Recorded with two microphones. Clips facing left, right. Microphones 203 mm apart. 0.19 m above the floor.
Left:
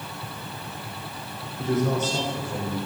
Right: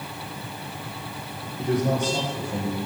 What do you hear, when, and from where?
1.6 s a man speaking: 15° right (ahead or behind), 5.5 m; by 2.8 s 10° right (ahead or behind), 6 m